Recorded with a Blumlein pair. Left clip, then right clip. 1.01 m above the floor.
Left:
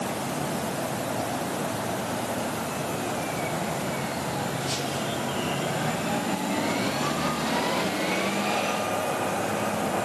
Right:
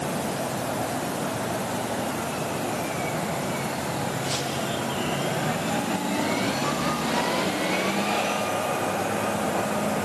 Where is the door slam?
I don't hear a door slam.